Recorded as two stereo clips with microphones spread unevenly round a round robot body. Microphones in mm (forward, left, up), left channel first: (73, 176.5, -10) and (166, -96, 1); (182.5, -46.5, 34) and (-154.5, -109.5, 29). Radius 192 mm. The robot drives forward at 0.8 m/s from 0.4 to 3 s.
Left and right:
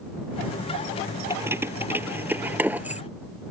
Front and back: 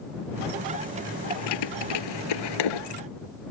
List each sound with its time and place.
1.3 s keys jangling: 10° left; by 3.0 s 15° left